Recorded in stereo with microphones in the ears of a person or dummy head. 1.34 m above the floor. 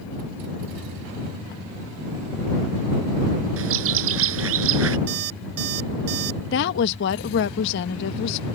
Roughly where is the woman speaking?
Left.